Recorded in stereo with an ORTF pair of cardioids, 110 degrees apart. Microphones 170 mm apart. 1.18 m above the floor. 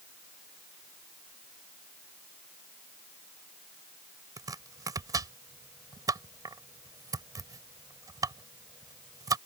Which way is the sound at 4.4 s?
20° right.